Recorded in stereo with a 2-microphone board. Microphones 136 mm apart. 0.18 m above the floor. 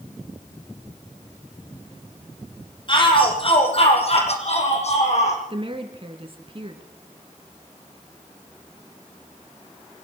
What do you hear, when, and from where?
2.9 s a shout: 35° left (ahead or behind), 6.5 m; by 5.4 s 55° left (ahead or behind), 9 m
5.5 s a woman speaking: 40° right (ahead or behind), 2.5 m